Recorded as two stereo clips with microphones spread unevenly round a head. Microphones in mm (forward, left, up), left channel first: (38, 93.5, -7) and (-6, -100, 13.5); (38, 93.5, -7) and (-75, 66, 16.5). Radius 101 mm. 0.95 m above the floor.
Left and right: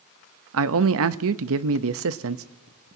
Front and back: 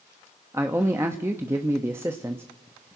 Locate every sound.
0.5 s a man speaking: 85° right, 0.8 m